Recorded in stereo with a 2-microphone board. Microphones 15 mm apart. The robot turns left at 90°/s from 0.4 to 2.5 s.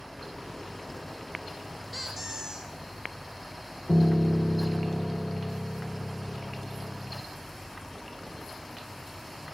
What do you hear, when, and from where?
1.9 s a squeak: 5° left, 6.5 m; by 2.7 s 45° right, 6.5 m
3.9 s a piano: 45° right (ahead or behind), 0.5 m